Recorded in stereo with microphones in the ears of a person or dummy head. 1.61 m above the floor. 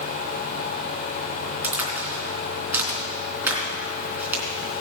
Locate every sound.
1.6 s a crack: 15° right (ahead or behind), 3.5 m